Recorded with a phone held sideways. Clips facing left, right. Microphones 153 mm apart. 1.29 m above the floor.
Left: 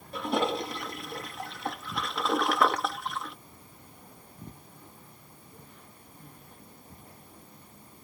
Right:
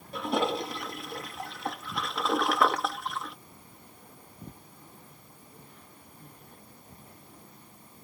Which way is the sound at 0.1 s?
Centre (ahead or behind).